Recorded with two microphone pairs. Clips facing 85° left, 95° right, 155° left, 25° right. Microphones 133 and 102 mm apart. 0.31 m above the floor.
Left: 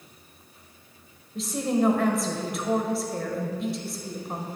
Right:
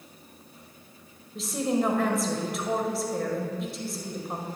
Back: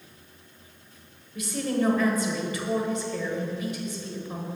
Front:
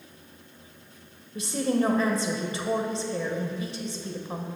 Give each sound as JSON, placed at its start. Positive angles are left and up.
{"t": 1.4, "sound": "a woman speaking", "azimuth_deg": -10, "distance_m": 1.0}